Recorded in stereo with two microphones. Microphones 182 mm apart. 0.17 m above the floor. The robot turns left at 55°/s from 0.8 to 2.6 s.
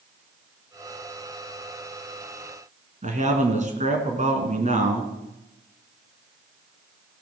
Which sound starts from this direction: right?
A man speaking, at 3.0 s.